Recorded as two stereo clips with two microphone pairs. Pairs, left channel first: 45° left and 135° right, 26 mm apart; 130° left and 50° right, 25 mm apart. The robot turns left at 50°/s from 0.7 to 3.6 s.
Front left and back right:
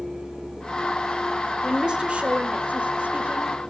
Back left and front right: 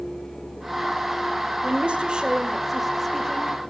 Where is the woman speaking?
75° right, 1.9 m; by 3.7 s 170° right, 1.9 m.